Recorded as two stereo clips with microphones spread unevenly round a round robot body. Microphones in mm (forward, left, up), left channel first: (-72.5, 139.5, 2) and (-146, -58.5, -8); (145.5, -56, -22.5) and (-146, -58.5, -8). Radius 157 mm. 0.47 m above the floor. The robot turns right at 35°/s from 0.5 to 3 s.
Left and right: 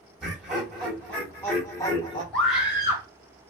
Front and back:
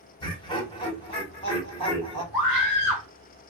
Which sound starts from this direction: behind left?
A scream, at 2.3 s.